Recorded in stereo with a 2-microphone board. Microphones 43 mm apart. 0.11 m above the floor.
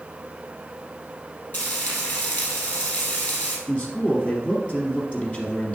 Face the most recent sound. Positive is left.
turn(degrees=25)  # may be behind; listen again after turning